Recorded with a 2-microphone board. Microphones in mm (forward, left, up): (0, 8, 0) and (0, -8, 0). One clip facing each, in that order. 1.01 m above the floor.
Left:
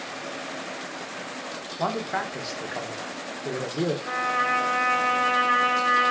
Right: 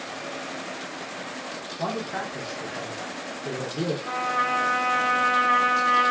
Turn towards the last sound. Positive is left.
turn(degrees=5)  # may be behind; listen again after turning